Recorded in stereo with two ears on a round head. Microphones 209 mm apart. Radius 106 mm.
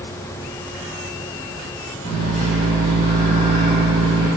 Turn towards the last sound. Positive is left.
turn(degrees=70)  # may be behind; listen again after turning